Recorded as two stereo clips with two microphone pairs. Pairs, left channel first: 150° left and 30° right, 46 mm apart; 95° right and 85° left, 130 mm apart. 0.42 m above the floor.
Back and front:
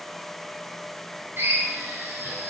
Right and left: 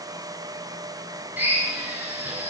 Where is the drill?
5° left, 6.5 m.